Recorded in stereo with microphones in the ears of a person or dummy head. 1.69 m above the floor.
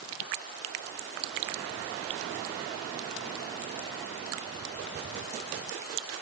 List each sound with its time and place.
Only background noise.